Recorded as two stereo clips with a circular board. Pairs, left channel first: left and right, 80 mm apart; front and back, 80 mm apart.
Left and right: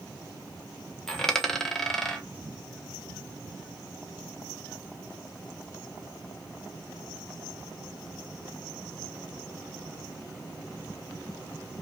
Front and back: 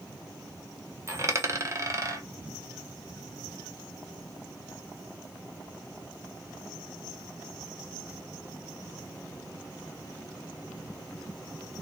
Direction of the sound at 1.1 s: 170° left.